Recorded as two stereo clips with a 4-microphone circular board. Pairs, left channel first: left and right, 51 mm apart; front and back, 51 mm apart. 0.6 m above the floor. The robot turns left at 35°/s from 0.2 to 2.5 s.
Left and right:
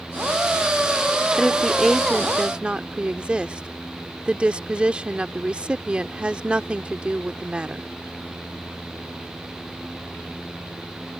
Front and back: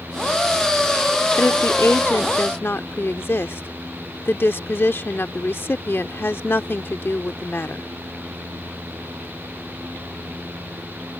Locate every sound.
1.4 s a woman speaking: 15° left; by 7.9 s 25° right